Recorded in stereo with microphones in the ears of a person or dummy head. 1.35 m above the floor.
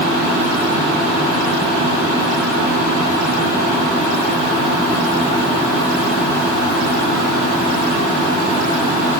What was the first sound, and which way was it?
Only background noise.